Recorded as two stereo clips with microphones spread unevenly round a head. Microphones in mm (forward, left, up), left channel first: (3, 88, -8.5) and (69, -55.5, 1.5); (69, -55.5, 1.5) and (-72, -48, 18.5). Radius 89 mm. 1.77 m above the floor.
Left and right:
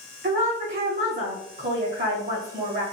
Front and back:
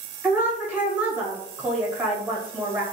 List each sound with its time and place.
0.2 s a woman speaking: 105° right, 1.7 m